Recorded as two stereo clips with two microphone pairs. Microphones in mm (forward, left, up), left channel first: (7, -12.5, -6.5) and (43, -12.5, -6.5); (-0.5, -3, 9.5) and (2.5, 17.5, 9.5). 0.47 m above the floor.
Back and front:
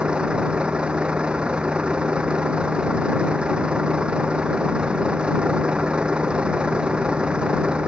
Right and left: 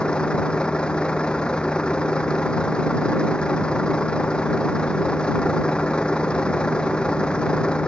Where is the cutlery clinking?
I don't hear cutlery clinking.